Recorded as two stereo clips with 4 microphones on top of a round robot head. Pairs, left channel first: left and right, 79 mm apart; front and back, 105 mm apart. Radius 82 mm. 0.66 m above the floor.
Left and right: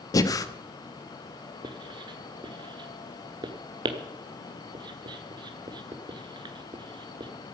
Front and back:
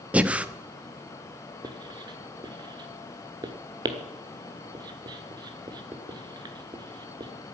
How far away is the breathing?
About 1.1 m.